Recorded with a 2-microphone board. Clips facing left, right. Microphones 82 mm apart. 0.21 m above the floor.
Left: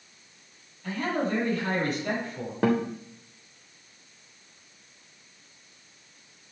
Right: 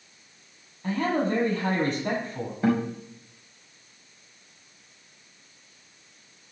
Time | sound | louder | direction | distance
0.8 | a man speaking | right 3 dB | 35° right (ahead or behind) | 7 m
2.6 | a guitar | even | 75° left (ahead or behind) | 3 m